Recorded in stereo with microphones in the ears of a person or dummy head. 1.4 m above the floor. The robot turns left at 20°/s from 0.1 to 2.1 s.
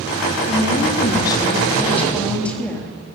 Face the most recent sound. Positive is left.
turn(degrees=5)